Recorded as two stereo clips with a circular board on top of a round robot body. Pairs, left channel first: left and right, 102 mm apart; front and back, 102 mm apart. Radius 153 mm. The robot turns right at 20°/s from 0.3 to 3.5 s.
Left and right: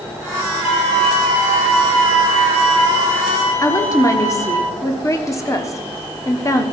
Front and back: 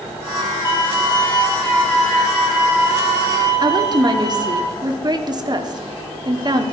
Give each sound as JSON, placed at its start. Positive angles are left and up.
{"t": 0.7, "sound": "a violin", "azimuth_deg": 60, "distance_m": 3.5}
{"t": 3.6, "sound": "a woman speaking", "azimuth_deg": 145, "distance_m": 1.4}